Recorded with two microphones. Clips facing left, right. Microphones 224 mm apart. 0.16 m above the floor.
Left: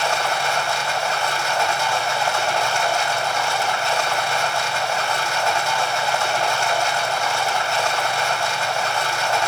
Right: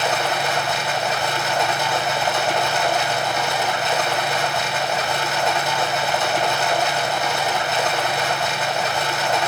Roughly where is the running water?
Centre.